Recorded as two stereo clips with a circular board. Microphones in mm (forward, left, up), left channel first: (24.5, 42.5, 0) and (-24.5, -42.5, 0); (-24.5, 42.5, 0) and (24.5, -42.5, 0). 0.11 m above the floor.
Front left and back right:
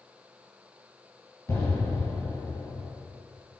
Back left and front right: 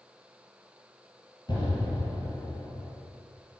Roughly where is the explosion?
Left.